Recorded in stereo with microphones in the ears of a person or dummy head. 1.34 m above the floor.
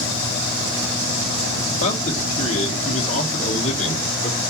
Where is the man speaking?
40° left (ahead or behind), 1.4 m.